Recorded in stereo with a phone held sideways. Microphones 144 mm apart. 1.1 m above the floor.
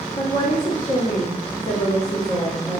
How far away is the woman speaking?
About 1.7 m.